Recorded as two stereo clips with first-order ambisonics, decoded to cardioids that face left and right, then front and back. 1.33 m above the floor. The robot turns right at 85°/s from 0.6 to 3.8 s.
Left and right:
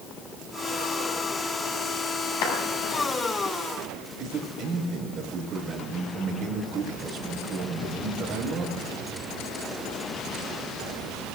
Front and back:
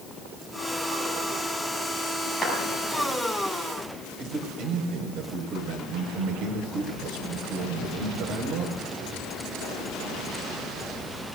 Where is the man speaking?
145° right, 5 m.